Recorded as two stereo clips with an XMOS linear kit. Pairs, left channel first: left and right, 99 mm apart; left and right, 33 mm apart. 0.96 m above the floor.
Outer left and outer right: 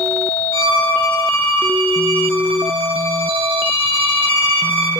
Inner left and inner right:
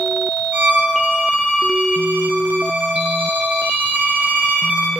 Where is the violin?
70° right (ahead or behind), 2.5 m.